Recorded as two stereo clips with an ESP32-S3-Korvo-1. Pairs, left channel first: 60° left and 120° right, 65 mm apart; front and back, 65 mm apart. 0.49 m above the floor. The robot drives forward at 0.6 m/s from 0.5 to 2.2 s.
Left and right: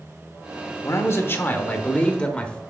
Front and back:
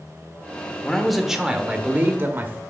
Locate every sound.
0.8 s a man speaking: 80° left, 1.0 m; by 2.6 s 130° left, 1.2 m